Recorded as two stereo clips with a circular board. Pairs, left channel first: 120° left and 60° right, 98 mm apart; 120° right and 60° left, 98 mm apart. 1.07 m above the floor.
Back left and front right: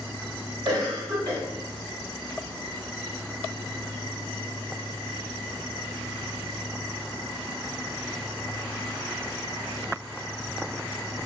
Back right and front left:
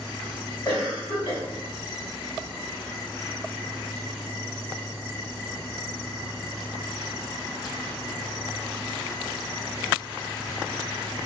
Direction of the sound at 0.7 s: 100° right.